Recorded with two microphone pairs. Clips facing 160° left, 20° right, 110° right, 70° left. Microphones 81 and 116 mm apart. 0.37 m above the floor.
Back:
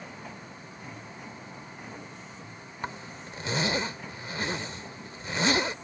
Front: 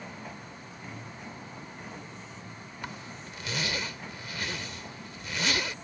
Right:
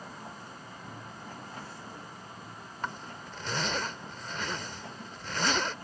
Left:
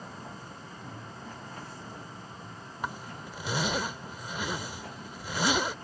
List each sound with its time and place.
2.8 s a zipper: 140° left